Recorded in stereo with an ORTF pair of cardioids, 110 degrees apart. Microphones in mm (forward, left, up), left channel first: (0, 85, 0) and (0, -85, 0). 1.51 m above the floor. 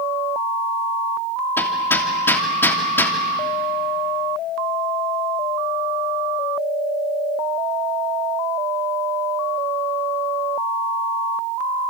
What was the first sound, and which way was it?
Hammering, 15° left.